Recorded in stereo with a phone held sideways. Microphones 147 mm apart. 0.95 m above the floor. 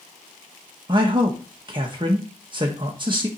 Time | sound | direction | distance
0.9 | a man speaking | 30° right (ahead or behind) | 0.9 m